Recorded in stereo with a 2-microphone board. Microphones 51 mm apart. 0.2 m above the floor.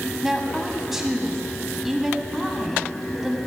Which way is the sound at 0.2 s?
5° right (ahead or behind).